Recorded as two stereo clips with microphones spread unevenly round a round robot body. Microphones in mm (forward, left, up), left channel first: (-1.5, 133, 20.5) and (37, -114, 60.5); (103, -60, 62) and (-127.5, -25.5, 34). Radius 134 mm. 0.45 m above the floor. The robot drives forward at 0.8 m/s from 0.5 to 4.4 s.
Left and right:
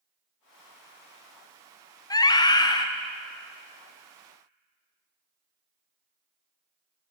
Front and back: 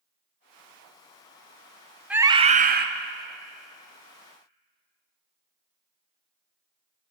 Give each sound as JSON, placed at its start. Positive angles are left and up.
{"t": 2.1, "sound": "a scream", "azimuth_deg": 110, "distance_m": 0.7}